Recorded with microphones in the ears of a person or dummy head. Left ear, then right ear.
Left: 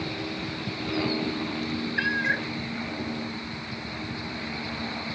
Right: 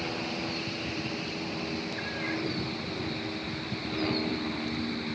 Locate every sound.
2.0 s a cat meowing: 75° left (ahead or behind)